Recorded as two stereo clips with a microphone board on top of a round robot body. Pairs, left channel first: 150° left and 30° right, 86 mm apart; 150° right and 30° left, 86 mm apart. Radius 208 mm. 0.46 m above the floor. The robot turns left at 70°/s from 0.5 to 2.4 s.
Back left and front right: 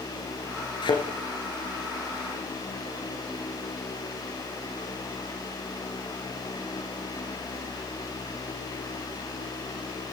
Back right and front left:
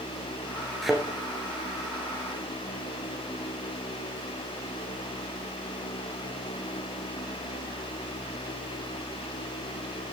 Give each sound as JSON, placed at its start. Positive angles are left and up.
{"t": 0.8, "sound": "a thud", "azimuth_deg": 125, "distance_m": 1.6}